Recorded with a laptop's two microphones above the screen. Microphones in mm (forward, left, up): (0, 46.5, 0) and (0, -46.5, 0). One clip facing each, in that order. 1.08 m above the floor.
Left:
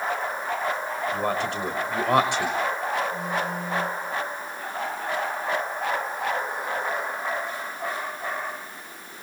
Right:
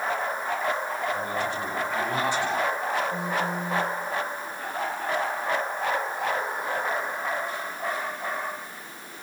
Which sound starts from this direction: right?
A phone buzzing, at 3.1 s.